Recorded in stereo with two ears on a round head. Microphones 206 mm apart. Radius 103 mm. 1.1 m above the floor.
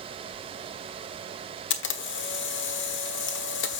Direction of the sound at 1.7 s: 55° left (ahead or behind).